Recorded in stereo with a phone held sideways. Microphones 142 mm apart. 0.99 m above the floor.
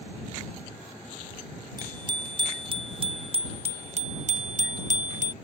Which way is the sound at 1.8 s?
30° right (ahead or behind).